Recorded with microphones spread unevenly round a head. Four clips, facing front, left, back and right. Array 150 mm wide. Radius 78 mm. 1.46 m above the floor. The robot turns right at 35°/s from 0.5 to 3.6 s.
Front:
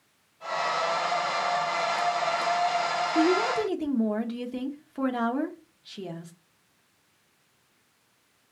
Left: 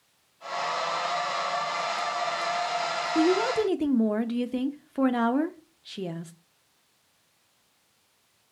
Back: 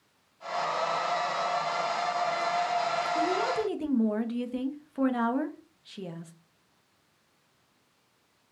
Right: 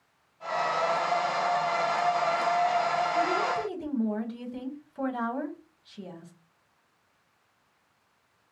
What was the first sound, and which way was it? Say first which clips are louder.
A woman speaking: left 4 dB, front 7 dB; 65° left.